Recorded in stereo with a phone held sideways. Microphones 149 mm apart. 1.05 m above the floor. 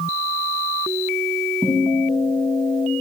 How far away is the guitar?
About 9 m.